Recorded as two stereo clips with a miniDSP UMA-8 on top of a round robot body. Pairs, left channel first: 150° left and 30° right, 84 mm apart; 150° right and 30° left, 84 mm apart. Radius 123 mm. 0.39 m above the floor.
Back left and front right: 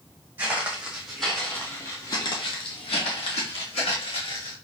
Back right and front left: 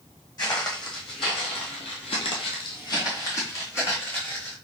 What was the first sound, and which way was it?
Footsteps, 105° right.